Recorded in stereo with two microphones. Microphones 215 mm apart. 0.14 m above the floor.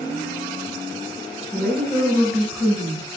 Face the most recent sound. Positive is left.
turn(degrees=-10)  # may be behind; listen again after turning